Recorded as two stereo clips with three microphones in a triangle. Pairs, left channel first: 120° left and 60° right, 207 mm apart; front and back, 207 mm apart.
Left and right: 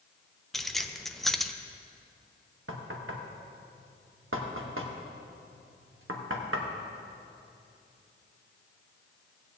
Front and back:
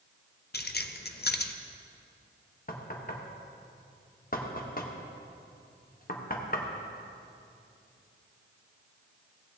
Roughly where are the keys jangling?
Ahead left.